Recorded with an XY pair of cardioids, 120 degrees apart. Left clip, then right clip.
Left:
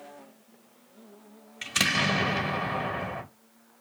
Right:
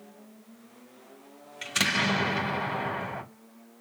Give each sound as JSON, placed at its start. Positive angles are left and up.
{"t": 1.6, "sound": "an explosion", "azimuth_deg": 0, "distance_m": 1.9}